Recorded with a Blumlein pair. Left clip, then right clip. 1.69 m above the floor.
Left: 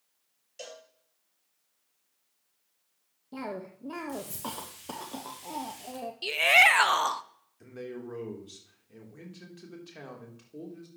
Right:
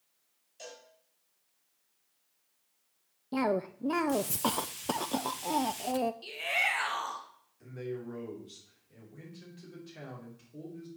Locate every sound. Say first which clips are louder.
0.6 s a cowbell: left 3 dB; 45° left, 7 m
3.3 s a cough: right 8 dB; 65° right, 0.5 m
6.2 s a shout: left 15 dB; 35° left, 0.7 m
7.6 s a man speaking: right 1 dB; 70° left, 4 m